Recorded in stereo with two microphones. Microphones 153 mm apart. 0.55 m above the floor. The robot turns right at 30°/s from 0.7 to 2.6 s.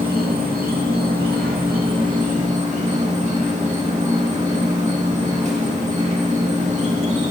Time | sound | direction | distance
0.0 | an insect | 105° right | 0.8 m